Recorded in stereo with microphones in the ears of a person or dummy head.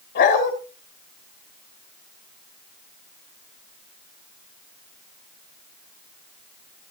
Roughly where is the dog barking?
Left.